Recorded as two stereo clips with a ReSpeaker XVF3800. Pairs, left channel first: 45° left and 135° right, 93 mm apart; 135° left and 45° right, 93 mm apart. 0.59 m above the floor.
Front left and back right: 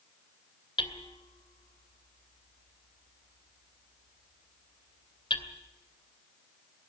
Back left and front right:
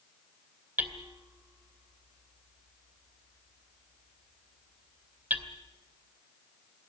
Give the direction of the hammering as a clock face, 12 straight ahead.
11 o'clock.